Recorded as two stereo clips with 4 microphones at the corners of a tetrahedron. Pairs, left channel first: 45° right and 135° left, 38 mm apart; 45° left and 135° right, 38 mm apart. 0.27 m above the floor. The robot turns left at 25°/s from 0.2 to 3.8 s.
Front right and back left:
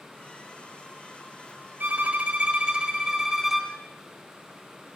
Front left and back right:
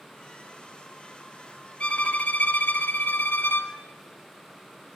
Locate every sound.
1.8 s a violin: 95° left, 1.3 m; by 3.7 s 50° left, 1.3 m